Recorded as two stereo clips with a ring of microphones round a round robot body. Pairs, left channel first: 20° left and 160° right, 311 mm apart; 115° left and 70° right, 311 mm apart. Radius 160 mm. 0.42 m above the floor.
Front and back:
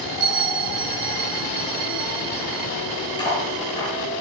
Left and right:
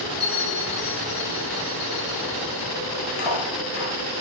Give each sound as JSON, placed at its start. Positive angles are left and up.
{"t": 0.2, "sound": "a bell", "azimuth_deg": 170, "distance_m": 3.0}
{"t": 3.2, "sound": "cutlery clinking", "azimuth_deg": 100, "distance_m": 5.0}